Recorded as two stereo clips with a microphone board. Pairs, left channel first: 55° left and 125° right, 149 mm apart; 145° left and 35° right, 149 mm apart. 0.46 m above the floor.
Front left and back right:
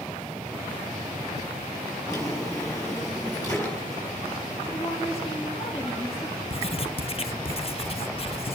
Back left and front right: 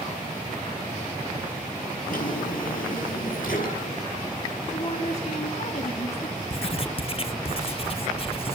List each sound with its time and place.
2.1 s a drawer: 125° left, 6 m
4.7 s a woman speaking: 100° left, 4.5 m
6.5 s writing: 100° left, 0.7 m